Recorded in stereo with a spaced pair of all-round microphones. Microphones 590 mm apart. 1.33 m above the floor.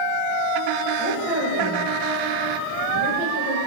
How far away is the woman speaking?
About 1.9 m.